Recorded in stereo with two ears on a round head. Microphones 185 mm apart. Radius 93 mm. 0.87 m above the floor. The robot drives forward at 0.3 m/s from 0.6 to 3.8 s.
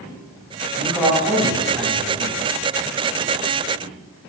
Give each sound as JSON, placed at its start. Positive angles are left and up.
{"t": 0.8, "sound": "a man speaking", "side_deg": -10, "distance_m": 5.0}